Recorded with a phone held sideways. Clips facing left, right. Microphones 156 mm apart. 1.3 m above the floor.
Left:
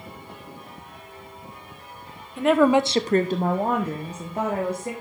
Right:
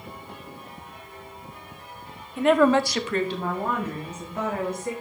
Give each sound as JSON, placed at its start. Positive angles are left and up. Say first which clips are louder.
{"t": 2.4, "sound": "a woman speaking", "louder": "left 1 dB", "side_deg": -5, "distance_m": 1.0}